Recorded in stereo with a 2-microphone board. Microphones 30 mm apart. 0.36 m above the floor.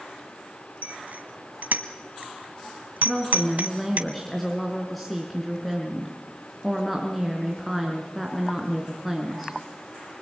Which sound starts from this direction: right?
A bicycle bell, at 0.8 s.